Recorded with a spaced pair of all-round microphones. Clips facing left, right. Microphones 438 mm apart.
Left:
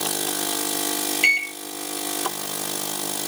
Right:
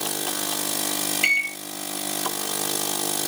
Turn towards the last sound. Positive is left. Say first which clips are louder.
# left 2 dB
turn(degrees=0)  # may be behind; listen again after turning